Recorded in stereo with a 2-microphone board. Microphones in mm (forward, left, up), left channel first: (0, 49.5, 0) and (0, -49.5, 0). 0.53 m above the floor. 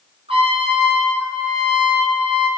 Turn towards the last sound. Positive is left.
turn(degrees=-70)  # may be behind; listen again after turning